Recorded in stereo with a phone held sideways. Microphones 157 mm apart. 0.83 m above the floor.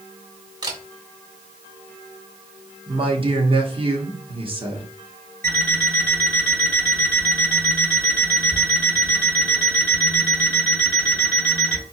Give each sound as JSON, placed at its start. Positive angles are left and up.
{"t": 0.6, "sound": "a camera shutter", "side_deg": -30, "distance_m": 1.2}
{"t": 2.9, "sound": "a man speaking", "side_deg": -35, "distance_m": 1.2}
{"t": 5.4, "sound": "an alarm clock", "side_deg": -70, "distance_m": 3.5}